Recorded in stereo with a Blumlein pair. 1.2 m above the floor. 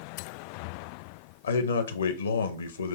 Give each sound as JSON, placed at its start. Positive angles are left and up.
{"t": 1.4, "sound": "a man speaking", "azimuth_deg": 65, "distance_m": 0.8}